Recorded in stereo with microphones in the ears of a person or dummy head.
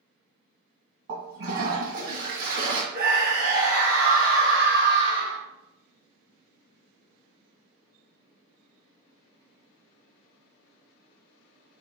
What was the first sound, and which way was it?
A toilet flushing, 65° right (ahead or behind).